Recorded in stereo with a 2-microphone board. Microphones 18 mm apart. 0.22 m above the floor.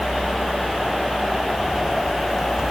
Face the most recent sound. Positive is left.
turn(degrees=-15)  # may be behind; listen again after turning